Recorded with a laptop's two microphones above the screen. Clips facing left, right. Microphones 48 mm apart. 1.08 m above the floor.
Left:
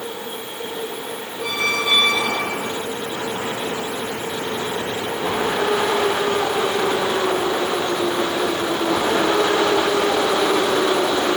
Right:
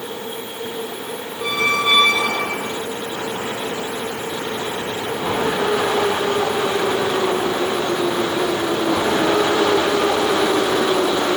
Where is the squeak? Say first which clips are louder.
Right 3 dB; 50° right (ahead or behind), 5 m.